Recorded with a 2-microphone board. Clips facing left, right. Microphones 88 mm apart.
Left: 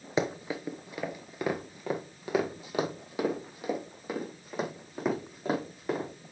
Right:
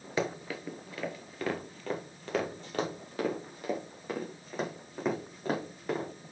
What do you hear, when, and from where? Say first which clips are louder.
0.2 s running footsteps: left 3 dB; 20° left (ahead or behind), 1.2 m; by 6.1 s 5° left (ahead or behind), 4 m